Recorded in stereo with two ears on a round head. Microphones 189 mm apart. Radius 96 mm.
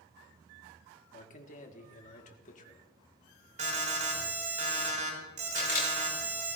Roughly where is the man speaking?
Left.